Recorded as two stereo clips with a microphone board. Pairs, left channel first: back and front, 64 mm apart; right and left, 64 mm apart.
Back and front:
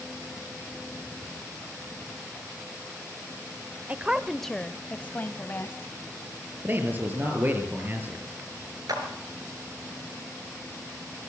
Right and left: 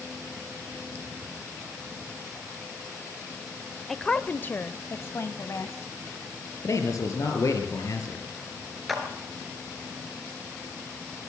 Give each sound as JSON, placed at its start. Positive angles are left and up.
{"t": 3.9, "sound": "a woman speaking", "azimuth_deg": -10, "distance_m": 0.9}
{"t": 6.6, "sound": "a man speaking", "azimuth_deg": -60, "distance_m": 5.5}
{"t": 8.9, "sound": "a clap", "azimuth_deg": 0, "distance_m": 4.0}